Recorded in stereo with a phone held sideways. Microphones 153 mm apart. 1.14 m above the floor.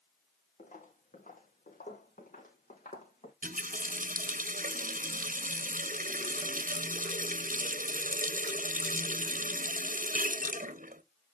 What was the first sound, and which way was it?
Footsteps, 60° left (ahead or behind).